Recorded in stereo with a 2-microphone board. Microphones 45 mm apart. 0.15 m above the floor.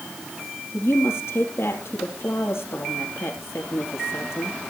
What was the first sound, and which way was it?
A woman speaking, 70° left (ahead or behind).